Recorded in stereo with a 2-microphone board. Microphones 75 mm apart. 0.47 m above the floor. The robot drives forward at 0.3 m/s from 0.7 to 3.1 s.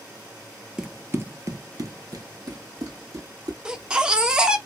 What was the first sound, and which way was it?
Running footsteps, 10° right (ahead or behind).